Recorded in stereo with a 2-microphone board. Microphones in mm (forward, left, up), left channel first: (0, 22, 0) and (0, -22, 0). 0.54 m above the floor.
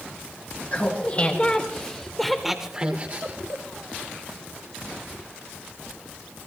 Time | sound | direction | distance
0.7 | laughter | 40° left (ahead or behind) | 3 m